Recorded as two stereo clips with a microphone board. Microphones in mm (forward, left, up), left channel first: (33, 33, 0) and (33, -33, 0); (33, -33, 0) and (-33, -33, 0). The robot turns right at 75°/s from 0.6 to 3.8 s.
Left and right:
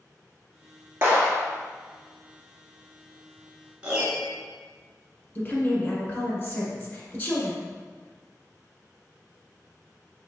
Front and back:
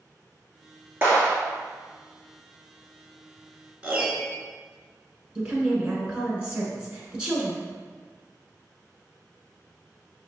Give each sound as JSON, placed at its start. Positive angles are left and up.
{"t": 1.0, "sound": "a clap", "azimuth_deg": -130, "distance_m": 1.9}
{"t": 3.8, "sound": "a piano", "azimuth_deg": -135, "distance_m": 1.6}
{"t": 5.3, "sound": "a woman speaking", "azimuth_deg": 115, "distance_m": 1.5}